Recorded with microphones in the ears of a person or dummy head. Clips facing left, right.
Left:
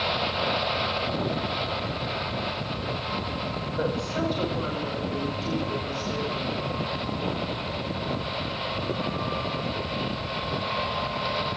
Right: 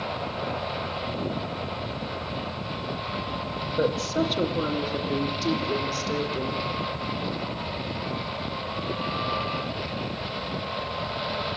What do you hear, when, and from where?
3.8 s a woman speaking: 40° right (ahead or behind), 1.8 m; by 6.6 s 65° right (ahead or behind), 4 m